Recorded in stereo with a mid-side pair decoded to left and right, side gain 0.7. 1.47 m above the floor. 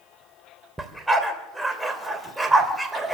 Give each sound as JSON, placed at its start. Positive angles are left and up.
{"t": 0.8, "sound": "a dog barking", "azimuth_deg": -10, "distance_m": 2.5}